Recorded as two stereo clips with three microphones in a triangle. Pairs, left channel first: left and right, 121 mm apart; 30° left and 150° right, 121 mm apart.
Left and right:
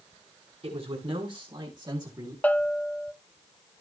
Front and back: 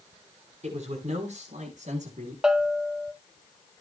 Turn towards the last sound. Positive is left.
turn(degrees=140)